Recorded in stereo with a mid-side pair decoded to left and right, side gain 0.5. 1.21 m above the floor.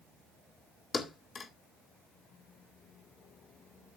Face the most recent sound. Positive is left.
turn(degrees=40)